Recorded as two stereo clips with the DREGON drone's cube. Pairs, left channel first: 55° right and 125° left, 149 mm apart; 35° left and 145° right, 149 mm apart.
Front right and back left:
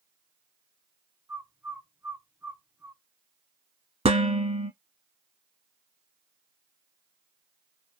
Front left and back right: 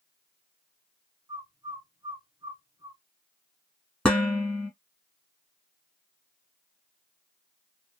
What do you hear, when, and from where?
1.3 s a bird: 175° right, 0.8 m
4.0 s dishes clattering: 115° left, 1.0 m